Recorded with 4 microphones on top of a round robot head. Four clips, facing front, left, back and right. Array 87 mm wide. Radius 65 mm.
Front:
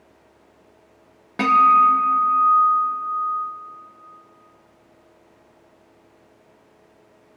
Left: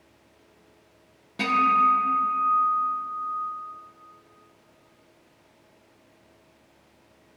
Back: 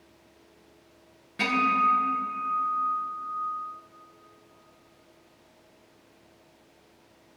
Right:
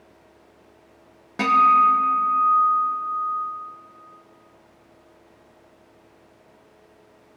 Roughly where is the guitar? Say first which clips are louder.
Right 5 dB, front 10 dB; ahead.